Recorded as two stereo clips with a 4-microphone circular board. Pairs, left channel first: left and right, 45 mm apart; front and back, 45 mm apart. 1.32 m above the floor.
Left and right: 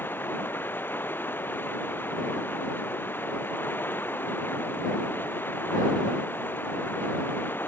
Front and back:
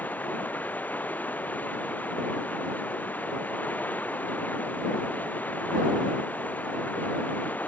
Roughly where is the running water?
Ahead left.